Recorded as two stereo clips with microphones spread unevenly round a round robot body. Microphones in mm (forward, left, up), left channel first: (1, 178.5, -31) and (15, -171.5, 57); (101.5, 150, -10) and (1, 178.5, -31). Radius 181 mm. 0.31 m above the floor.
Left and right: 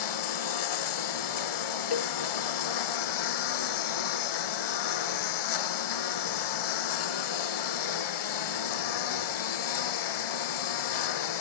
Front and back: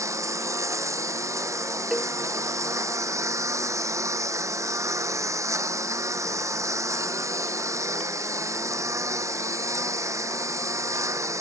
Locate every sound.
0.0 s a lawn mower: 105° left
1.9 s a cowbell: 75° left